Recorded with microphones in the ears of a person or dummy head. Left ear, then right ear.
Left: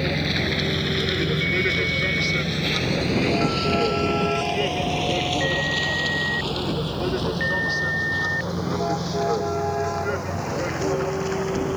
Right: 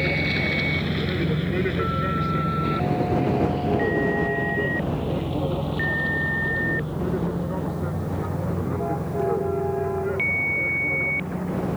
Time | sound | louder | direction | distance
0.0 | a vehicle | right 1 dB | 5° right (ahead or behind) | ?